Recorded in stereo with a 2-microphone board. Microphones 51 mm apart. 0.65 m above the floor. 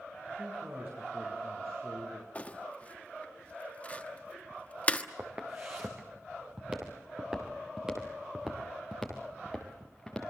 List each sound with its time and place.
0.4 s a man speaking: 45° right (ahead or behind), 7.5 m; by 2.2 s 50° right (ahead or behind), 9 m
2.4 s crumpling: 30° left (ahead or behind), 1.3 m
5.2 s footsteps: 35° right (ahead or behind), 4.5 m; by 10.3 s 5° left (ahead or behind), 4.5 m